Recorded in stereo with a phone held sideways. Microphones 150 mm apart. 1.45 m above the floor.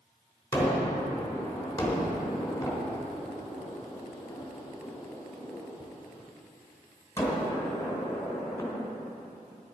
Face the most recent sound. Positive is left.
turn(degrees=20)  # may be behind; listen again after turning